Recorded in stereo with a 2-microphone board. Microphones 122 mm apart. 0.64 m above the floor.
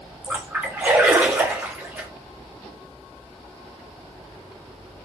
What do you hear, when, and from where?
0.2 s a splash: 15° right (ahead or behind), 1.1 m